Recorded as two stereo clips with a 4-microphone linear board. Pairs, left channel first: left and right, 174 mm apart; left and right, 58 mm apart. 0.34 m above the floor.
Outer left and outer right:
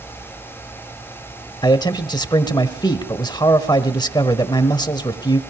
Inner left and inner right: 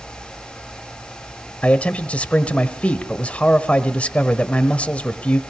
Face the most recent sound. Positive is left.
turn(degrees=25)  # may be behind; listen again after turning